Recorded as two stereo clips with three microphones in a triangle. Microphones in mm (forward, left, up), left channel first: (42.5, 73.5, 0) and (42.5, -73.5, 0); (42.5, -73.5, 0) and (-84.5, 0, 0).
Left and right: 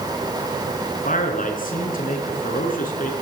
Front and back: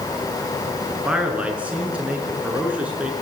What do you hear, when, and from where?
1.1 s a man speaking: 70° left, 6 m